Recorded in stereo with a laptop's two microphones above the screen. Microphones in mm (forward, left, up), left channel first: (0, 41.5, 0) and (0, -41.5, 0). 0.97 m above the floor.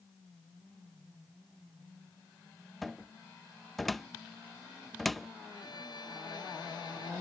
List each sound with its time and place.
2.8 s a cupboard door: centre (ahead or behind)
5.5 s a violin: 55° left (ahead or behind)